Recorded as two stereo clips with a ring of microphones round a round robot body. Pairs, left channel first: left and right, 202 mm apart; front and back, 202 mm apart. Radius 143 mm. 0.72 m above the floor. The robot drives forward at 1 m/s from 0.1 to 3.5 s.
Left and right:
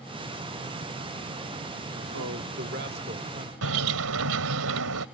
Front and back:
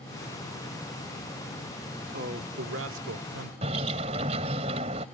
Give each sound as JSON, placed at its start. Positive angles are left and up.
{"t": 2.1, "sound": "a man speaking", "azimuth_deg": -125}
{"t": 3.6, "sound": "a bird", "azimuth_deg": -110}